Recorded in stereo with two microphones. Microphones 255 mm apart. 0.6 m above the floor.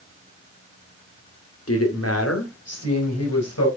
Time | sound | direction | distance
1.7 | a woman speaking | 65° left (ahead or behind) | 1.5 m